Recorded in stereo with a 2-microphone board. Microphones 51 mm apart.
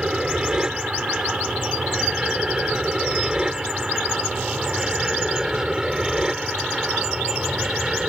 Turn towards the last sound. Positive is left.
turn(degrees=-10)  # may be behind; listen again after turning